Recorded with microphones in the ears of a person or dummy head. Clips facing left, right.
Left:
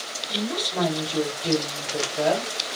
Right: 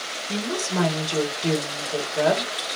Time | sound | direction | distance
0.3 | a woman speaking | 65° right (ahead or behind) | 1.7 m